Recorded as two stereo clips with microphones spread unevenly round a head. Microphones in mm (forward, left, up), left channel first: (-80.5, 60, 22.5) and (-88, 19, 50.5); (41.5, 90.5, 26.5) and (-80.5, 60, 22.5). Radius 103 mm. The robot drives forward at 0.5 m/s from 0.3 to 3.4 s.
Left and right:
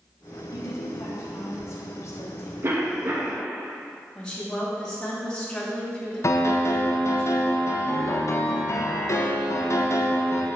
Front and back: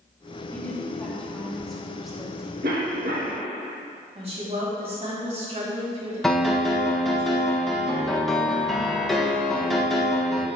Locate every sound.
0.5 s a woman speaking: 90° left, 3 m; by 2.5 s 110° left, 3.5 m
2.6 s a cough: 115° right, 2.0 m; by 3.4 s 125° right, 2 m
4.2 s a woman speaking: 150° left, 4.5 m
6.2 s a piano: 100° left, 1.7 m